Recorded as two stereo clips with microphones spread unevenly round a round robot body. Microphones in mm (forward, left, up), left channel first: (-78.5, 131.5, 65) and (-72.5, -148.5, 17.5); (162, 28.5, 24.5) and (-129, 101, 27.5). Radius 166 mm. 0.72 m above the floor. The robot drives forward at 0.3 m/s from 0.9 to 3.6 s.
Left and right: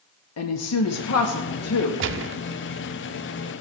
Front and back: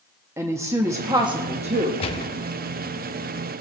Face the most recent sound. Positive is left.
turn(degrees=-130)